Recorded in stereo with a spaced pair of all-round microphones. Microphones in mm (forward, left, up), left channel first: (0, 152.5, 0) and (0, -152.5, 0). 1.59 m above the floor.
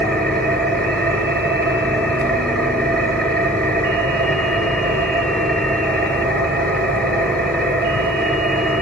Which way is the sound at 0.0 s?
5° left (ahead or behind).